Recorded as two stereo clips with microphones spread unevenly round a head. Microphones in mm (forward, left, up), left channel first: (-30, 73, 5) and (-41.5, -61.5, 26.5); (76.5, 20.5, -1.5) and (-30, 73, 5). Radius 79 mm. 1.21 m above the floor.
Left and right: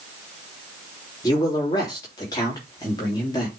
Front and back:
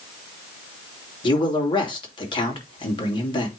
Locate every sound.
1.2 s a man speaking: 20° left, 2.5 m